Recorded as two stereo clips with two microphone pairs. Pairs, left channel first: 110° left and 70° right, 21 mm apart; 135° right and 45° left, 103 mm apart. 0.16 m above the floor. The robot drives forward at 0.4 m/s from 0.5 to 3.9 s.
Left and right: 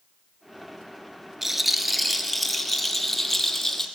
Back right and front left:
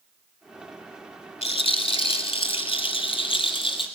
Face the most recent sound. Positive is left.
turn(degrees=-170)